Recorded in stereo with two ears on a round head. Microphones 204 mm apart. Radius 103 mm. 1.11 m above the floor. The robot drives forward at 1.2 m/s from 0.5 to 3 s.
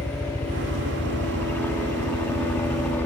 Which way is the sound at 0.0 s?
10° left (ahead or behind).